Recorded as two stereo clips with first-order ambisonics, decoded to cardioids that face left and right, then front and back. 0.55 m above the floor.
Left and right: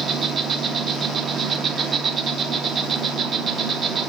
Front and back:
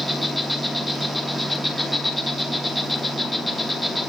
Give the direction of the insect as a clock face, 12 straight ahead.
2 o'clock.